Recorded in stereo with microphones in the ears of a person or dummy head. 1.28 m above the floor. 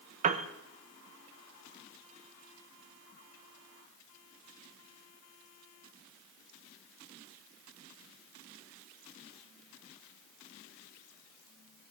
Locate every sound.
0.2 s a piano: 45° right (ahead or behind), 0.7 m